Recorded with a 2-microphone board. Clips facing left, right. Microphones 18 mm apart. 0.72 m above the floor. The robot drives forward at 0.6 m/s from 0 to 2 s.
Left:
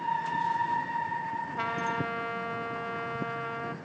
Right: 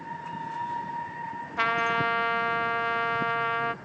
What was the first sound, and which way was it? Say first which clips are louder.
A trumpet: right 8 dB; 35° right (ahead or behind).